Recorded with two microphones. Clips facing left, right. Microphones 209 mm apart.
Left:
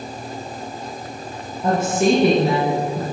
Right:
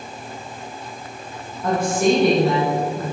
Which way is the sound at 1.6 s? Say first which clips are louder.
Left 1 dB; 25° left (ahead or behind).